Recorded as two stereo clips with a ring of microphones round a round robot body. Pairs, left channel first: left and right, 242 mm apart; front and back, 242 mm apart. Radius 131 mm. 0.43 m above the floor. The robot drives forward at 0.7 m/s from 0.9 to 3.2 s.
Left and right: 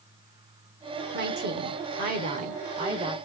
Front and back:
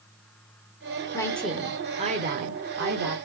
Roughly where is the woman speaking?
Right.